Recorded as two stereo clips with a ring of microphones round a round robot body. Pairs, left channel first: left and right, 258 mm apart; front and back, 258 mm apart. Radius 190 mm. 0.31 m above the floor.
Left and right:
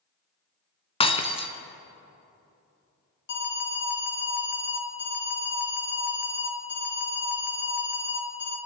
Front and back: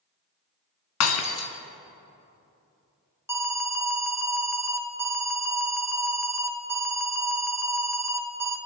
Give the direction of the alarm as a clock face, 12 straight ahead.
9 o'clock.